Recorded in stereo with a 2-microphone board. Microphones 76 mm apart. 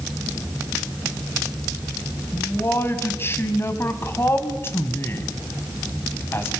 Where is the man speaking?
30° left (ahead or behind), 2.5 m.